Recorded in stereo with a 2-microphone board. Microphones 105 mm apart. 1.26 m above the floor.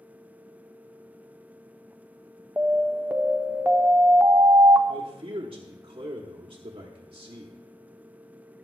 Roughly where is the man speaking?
Right.